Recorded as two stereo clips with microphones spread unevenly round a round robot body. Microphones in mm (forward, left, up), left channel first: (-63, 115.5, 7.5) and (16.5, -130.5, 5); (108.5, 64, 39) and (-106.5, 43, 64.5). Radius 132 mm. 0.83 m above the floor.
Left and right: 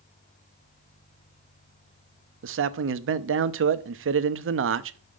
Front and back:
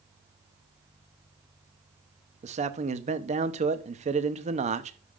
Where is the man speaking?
110° right, 0.7 m.